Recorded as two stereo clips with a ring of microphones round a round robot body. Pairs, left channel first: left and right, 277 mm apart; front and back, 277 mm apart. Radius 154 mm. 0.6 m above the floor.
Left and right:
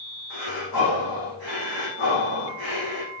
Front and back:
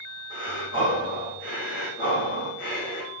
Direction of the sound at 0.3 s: 105° left.